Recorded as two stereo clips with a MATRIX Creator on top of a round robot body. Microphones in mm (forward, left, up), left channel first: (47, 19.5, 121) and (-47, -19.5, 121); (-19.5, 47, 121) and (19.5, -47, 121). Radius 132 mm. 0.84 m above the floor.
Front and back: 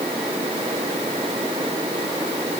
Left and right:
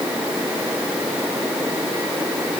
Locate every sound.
Only background noise.